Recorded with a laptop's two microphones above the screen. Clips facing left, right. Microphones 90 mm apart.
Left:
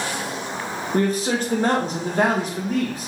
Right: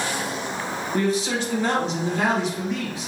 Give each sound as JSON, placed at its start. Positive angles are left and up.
{"t": 0.9, "sound": "a man speaking", "side_deg": 45, "distance_m": 0.8}